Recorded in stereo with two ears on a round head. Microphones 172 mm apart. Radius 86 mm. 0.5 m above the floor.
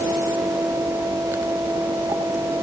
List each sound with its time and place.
Only background noise.